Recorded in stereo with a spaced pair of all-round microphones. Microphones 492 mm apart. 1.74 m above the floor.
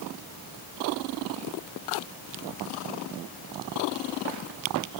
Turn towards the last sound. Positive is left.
No sound to turn to.